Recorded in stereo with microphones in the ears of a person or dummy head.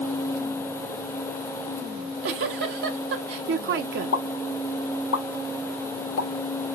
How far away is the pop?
About 1.1 m.